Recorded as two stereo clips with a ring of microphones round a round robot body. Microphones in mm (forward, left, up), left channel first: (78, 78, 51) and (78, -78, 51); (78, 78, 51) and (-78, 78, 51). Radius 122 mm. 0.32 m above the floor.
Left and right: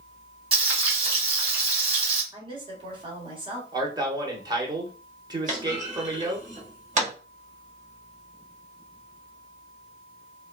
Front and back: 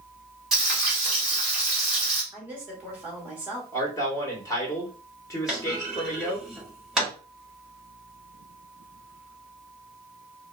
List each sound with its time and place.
0.5 s frying: 95° right, 1.4 m
2.3 s a woman speaking: 105° right, 1.4 m
3.7 s a man speaking: 50° right, 1.0 m
5.5 s a clunk: 90° right, 1.4 m